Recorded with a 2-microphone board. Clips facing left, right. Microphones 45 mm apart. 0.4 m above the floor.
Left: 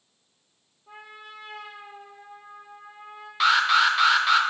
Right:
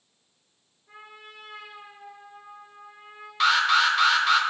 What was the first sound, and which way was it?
A trumpet, 75° left (ahead or behind).